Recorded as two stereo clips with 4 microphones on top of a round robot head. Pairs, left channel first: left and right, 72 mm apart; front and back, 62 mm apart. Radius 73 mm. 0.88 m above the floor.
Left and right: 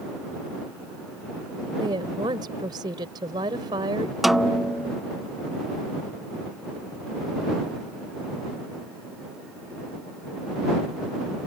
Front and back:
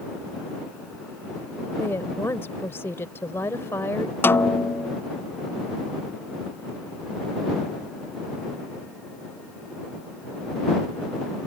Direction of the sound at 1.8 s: 60° right.